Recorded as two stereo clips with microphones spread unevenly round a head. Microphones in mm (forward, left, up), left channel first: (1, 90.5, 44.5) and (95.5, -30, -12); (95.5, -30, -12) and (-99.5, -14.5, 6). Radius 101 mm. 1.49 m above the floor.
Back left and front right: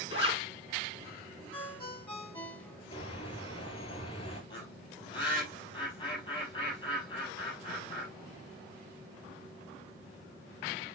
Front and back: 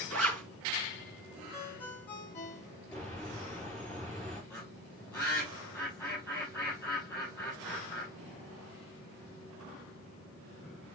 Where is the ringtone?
75° left, 2.5 m.